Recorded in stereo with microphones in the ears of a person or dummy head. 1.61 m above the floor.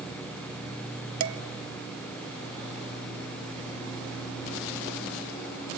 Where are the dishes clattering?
65° right (ahead or behind), 1.6 m.